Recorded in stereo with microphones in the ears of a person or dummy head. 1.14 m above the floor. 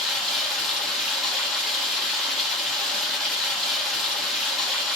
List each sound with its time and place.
0.0 s running water: 5° left (ahead or behind), 1.0 m